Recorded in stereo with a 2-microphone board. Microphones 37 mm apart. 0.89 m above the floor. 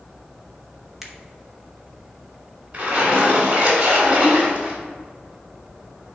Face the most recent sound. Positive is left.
turn(degrees=-50)  # may be behind; listen again after turning